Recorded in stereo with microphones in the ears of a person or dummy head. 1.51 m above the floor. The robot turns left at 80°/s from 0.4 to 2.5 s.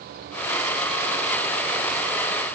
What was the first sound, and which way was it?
Only background noise.